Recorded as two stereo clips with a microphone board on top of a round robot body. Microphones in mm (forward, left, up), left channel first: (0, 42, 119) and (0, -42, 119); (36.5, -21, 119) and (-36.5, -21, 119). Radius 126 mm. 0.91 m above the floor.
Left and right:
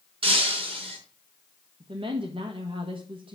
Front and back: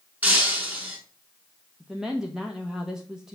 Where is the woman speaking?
95° right, 1.5 m.